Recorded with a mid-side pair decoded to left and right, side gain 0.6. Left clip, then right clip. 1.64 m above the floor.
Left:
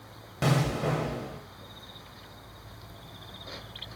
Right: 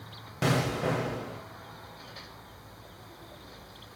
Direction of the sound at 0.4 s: 5° right.